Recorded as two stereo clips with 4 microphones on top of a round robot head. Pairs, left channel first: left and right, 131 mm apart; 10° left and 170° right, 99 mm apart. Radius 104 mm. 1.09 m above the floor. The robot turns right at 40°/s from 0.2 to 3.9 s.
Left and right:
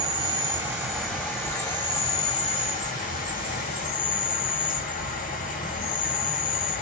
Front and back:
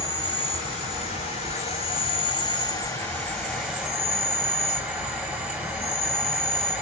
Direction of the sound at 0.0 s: 35° right.